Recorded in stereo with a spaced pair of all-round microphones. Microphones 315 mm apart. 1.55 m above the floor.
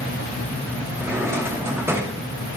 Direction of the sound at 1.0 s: 10° right (ahead or behind).